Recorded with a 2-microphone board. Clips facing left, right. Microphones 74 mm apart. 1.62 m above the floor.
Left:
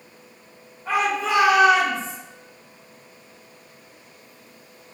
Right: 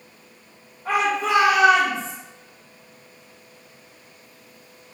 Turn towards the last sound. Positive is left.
turn(degrees=-65)  # may be behind; listen again after turning